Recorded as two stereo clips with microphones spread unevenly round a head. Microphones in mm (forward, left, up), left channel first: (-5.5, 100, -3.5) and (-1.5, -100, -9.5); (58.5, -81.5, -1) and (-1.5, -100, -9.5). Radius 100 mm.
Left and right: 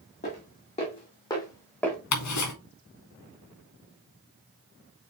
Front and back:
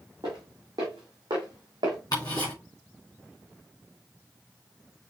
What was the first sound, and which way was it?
Footsteps, 140° left.